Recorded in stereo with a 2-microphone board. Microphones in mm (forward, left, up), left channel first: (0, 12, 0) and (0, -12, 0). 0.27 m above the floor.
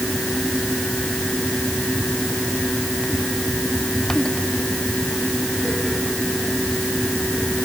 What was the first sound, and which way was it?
Only background noise.